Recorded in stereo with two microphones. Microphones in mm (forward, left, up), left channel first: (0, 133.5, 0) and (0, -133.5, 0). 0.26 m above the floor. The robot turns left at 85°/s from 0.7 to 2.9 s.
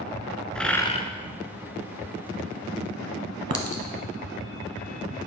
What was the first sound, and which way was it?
A bird, 5° left (ahead or behind).